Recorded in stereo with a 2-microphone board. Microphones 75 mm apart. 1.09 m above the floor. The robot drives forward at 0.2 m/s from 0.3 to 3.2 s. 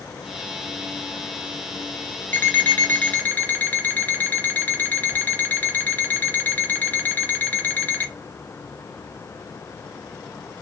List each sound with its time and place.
2.3 s an alarm clock: 25° left (ahead or behind), 0.5 m; by 8.1 s 20° left (ahead or behind), 0.6 m